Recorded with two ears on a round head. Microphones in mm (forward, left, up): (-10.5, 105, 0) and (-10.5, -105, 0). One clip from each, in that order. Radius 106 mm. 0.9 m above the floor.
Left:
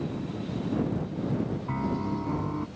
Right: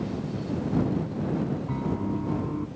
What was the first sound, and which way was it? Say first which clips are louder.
A piano: even; 55° left (ahead or behind).